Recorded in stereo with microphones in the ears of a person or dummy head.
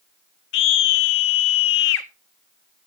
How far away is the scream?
About 0.9 m.